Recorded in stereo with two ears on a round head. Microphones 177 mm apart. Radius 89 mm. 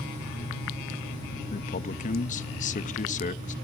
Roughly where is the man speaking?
Left.